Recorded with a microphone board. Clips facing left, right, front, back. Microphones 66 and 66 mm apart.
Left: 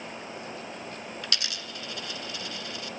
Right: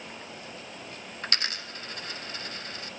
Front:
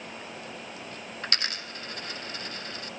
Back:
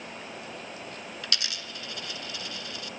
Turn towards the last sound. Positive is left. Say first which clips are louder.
# right 7 dB, front 5 dB
turn(degrees=-45)